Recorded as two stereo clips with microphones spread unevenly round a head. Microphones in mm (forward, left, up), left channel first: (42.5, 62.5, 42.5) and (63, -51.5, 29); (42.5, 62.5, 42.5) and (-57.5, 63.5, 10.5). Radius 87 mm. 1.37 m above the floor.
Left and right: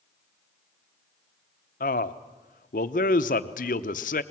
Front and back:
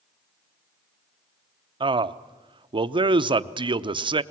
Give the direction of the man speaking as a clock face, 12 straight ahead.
7 o'clock.